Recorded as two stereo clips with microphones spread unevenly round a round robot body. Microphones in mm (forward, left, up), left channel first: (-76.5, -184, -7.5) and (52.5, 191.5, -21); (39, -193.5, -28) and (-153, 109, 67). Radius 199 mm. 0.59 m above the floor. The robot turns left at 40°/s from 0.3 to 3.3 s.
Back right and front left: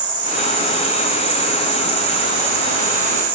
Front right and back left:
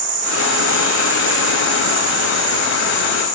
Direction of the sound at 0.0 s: 150° left.